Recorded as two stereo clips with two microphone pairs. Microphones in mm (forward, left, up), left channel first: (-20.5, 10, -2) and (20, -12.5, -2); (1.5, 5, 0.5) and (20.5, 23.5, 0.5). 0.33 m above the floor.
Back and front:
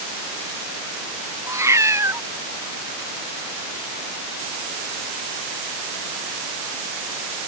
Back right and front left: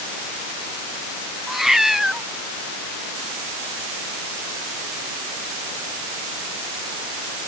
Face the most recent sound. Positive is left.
turn(degrees=-30)